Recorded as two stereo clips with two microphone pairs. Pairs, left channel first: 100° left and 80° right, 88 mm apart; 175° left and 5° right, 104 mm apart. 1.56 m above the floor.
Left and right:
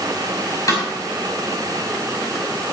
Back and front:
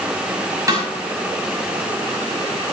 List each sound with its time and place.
0.7 s a snare drum: 50° left, 5.5 m